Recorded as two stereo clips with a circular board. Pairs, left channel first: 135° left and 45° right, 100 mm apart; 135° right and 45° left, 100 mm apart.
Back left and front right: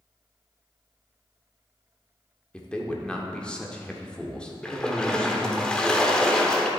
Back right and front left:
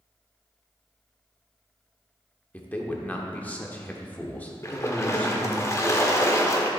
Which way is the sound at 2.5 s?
170° right.